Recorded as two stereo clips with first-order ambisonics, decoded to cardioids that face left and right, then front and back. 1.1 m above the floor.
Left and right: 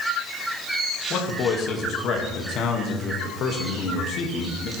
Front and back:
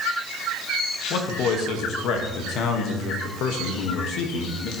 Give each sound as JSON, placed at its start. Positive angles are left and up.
{"t": 1.1, "sound": "a man speaking", "azimuth_deg": 40, "distance_m": 1.3}